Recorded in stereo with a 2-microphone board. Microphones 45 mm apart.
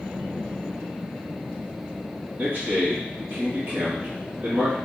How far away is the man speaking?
About 2 m.